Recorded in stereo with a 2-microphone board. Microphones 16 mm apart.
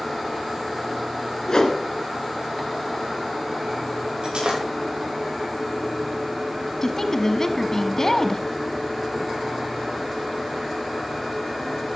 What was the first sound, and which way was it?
A whoosh, 45° left (ahead or behind).